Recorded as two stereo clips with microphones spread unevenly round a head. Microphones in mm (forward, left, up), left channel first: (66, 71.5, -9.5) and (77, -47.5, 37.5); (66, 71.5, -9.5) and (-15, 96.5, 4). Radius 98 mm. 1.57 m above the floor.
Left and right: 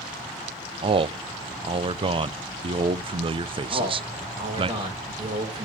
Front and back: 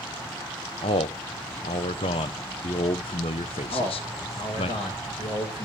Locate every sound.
0.8 s a man speaking: 55° right, 0.6 m
3.7 s a man speaking: 50° right, 6 m